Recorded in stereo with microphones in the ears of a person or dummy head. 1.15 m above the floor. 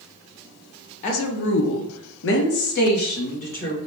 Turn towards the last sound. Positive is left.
turn(degrees=40)  # may be behind; listen again after turning